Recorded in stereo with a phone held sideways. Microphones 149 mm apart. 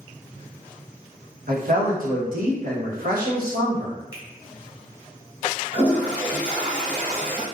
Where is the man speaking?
75° right (ahead or behind), 1.0 m.